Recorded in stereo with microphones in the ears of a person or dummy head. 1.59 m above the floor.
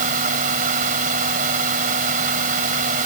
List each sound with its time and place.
0.0 s a fan: 45° right (ahead or behind)